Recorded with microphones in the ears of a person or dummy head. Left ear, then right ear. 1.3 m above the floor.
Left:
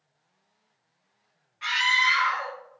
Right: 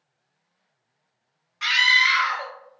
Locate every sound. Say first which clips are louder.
1.6 s a scream: right 5 dB; 45° right (ahead or behind), 0.9 m